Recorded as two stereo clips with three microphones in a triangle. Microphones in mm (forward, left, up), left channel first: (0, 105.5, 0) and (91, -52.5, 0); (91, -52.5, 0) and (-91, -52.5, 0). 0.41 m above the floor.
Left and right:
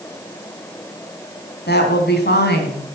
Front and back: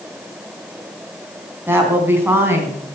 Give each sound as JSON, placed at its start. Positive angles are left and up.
{"t": 1.7, "sound": "a woman speaking", "azimuth_deg": 105, "distance_m": 3.5}